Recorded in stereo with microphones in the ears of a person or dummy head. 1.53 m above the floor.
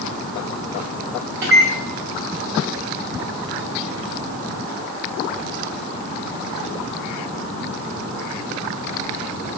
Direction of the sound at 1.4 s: 65° right (ahead or behind).